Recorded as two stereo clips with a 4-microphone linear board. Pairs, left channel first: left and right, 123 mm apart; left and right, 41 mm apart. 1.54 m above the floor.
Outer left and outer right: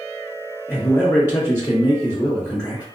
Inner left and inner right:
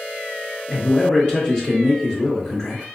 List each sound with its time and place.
0.7 s a man speaking: 25° left (ahead or behind), 1.0 m